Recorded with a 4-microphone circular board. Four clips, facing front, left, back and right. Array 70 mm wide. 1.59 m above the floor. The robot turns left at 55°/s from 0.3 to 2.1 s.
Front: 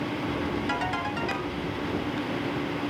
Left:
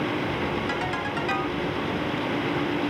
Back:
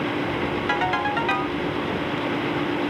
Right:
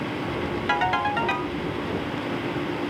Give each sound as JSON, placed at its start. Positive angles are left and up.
{"t": 0.7, "sound": "a ringtone", "azimuth_deg": -130, "distance_m": 1.1}